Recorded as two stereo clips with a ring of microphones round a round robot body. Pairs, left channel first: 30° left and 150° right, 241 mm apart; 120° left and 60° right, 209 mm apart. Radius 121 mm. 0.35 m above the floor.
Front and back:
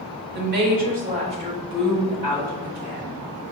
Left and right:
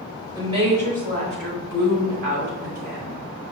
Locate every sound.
0.3 s a woman speaking: 130° right, 1.1 m; by 3.2 s 65° right, 2 m